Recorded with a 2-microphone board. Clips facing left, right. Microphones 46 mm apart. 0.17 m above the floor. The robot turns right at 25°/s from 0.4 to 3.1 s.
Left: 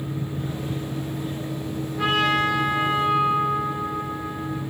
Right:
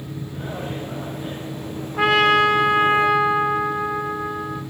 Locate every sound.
2.0 s a trumpet: 75° right (ahead or behind), 4 m; by 4.6 s 80° right, 4 m